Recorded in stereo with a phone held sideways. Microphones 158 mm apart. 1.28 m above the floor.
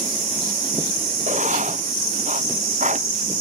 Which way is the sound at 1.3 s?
50° right (ahead or behind).